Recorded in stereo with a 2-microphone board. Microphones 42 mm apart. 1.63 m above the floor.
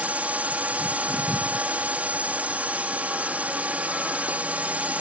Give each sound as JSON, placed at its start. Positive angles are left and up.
{"t": 0.0, "sound": "a drone", "side_deg": -35}